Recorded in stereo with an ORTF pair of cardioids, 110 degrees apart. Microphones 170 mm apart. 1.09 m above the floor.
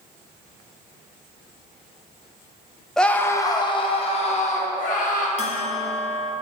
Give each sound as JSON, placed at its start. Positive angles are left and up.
{"t": 3.0, "sound": "a scream", "azimuth_deg": 5, "distance_m": 0.8}
{"t": 5.4, "sound": "a bell", "azimuth_deg": 40, "distance_m": 1.0}